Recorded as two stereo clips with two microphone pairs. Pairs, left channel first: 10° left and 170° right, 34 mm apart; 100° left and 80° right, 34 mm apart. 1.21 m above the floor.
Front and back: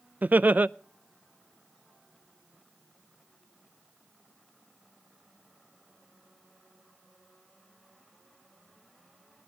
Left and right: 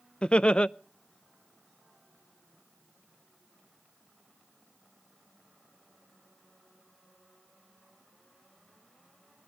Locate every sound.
0.2 s laughter: 165° left, 0.5 m